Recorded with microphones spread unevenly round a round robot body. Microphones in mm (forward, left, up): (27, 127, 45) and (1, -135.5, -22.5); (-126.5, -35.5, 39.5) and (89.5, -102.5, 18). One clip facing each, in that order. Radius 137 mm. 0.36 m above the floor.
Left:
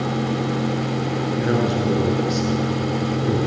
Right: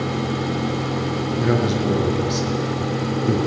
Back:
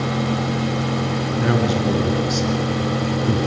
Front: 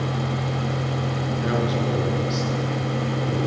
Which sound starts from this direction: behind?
A man speaking, at 1.4 s.